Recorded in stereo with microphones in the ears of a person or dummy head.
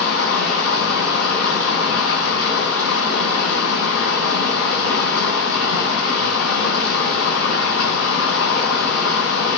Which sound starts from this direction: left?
Running water, at 0.0 s.